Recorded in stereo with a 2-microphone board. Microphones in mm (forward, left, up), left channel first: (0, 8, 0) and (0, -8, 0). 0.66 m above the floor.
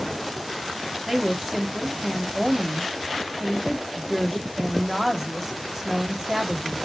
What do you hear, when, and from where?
1.1 s a woman speaking: 30° right (ahead or behind), 0.9 m